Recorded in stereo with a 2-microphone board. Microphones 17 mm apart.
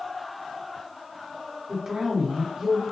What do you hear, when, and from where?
1.7 s a woman speaking: 40° right (ahead or behind), 1.4 m